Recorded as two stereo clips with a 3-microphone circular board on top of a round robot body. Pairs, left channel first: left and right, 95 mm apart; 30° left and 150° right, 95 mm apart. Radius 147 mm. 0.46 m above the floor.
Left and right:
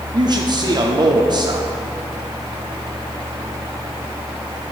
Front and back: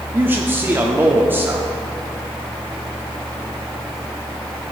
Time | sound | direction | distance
0.1 | a man speaking | 90° right | 1.3 m